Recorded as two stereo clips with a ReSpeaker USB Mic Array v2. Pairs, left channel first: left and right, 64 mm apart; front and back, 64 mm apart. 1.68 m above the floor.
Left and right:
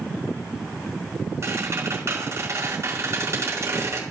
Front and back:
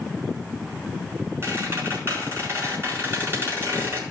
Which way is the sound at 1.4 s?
135° right.